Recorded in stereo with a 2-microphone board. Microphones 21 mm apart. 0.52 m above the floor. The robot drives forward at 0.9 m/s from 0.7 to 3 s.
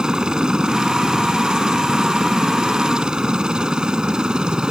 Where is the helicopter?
45° right (ahead or behind).